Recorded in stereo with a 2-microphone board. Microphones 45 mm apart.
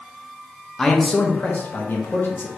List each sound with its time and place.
0.8 s a man speaking: 15° left (ahead or behind), 0.7 m; by 2.5 s 55° left (ahead or behind), 1.4 m